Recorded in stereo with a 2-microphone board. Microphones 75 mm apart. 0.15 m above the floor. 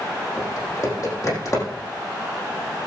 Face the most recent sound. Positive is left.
turn(degrees=45)  # may be behind; listen again after turning